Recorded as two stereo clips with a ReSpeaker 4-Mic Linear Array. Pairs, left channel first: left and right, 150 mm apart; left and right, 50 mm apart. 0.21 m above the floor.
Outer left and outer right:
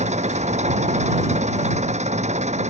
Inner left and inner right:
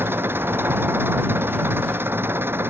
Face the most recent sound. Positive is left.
turn(degrees=-50)  # may be behind; listen again after turning